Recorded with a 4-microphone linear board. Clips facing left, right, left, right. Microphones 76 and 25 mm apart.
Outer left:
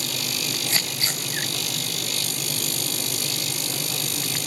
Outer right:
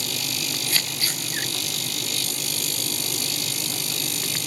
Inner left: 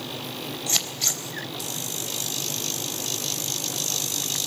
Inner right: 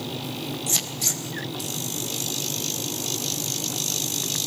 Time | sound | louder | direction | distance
0.7 | scissors | outer left 1 dB, inner left 2 dB | 25° left (ahead or behind) | 3 m